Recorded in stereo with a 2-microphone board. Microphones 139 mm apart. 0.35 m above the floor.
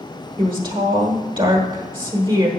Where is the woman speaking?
35° right (ahead or behind), 1.4 m.